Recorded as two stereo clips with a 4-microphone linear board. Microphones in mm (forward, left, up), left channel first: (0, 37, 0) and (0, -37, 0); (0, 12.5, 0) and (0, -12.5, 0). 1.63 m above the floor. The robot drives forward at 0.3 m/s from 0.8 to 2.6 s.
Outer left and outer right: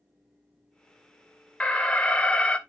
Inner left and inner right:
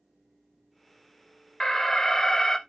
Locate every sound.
1.6 s an alarm: 15° left (ahead or behind), 0.6 m